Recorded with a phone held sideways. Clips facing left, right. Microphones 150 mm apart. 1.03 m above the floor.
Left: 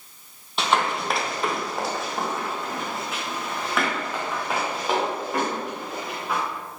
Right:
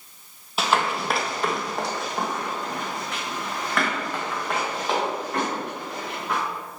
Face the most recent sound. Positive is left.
turn(degrees=5)  # may be behind; listen again after turning